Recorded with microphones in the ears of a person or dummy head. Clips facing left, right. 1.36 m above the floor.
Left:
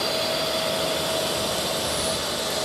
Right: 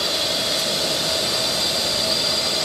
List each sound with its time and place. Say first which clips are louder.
0.0 s a drone: left 1 dB; 20° right (ahead or behind); by 2.6 s 40° right (ahead or behind)